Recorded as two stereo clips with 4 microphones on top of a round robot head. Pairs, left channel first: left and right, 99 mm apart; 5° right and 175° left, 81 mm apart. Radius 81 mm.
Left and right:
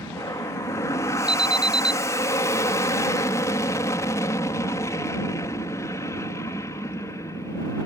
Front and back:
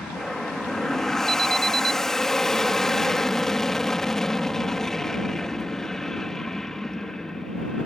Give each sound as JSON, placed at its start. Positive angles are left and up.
{"t": 0.0, "sound": "an aircraft", "azimuth_deg": 75}
{"t": 1.3, "sound": "an alarm", "azimuth_deg": -170}